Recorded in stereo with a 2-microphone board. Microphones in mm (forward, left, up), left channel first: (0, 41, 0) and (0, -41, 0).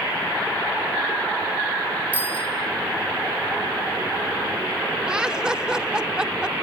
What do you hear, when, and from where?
2.1 s a bicycle bell: 20° right (ahead or behind), 6.5 m
5.1 s laughter: 10° right (ahead or behind), 0.9 m